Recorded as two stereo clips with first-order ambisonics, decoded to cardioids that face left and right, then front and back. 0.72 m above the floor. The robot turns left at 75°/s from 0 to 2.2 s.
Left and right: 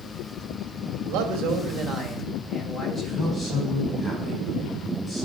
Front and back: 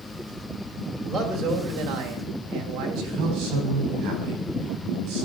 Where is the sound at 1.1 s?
90° right, 3 m; by 3.2 s 175° right, 3 m.